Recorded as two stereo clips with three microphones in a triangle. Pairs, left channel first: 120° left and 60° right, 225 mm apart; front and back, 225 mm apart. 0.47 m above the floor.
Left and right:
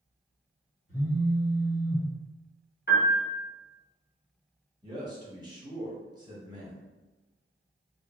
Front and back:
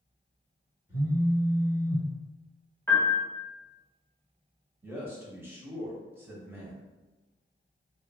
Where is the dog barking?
No dog barking in this recording.